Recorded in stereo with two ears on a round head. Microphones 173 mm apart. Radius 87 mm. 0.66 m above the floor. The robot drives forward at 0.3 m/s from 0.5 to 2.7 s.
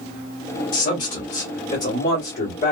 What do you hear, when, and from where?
0.7 s a man speaking: 40° left (ahead or behind), 2 m; by 2.7 s 35° left (ahead or behind), 2.5 m